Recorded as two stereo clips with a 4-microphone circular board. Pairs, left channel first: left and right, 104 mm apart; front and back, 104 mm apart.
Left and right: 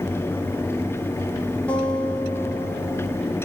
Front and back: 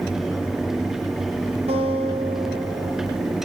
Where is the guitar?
165° left, 8 m.